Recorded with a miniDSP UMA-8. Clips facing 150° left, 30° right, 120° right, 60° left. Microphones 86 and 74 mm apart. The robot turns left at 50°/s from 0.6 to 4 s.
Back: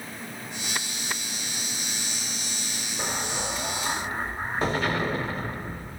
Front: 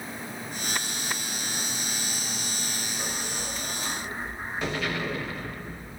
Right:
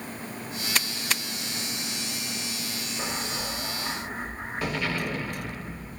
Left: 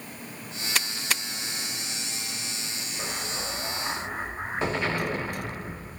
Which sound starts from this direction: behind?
An explosion, at 3.0 s.